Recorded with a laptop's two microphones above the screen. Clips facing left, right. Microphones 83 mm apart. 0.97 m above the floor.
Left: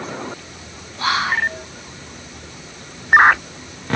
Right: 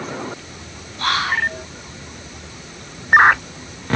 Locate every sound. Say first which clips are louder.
1.0 s whispering: left 1 dB; 10° left (ahead or behind), 1.0 m